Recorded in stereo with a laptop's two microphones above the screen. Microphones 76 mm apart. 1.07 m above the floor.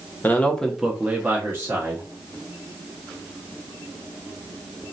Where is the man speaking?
25° left (ahead or behind), 0.7 m; by 2.0 s 40° right (ahead or behind), 0.9 m.